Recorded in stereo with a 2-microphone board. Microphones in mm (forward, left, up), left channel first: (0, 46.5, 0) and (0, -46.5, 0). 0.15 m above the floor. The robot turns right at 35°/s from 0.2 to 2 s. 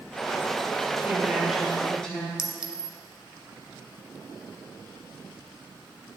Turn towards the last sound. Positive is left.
turn(degrees=-10)  # may be behind; listen again after turning